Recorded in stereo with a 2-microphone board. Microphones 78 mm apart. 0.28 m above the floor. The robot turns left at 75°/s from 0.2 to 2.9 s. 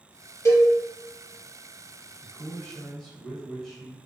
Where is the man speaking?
20° left (ahead or behind), 1.0 m; by 4.0 s 5° left (ahead or behind), 1.0 m.